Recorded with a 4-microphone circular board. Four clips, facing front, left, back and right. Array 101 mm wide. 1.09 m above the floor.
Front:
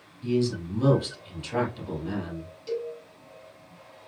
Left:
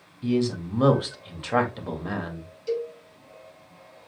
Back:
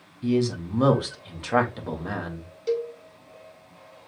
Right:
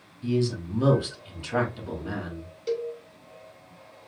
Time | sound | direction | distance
0.2 | a man speaking | 140° left | 1.8 m
2.7 | a cowbell | 140° right | 1.3 m